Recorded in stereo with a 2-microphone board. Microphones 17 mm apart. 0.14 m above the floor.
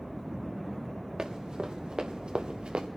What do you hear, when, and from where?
1.2 s running footsteps: 55° right (ahead or behind), 2.5 m; by 2.9 s 90° right, 1.4 m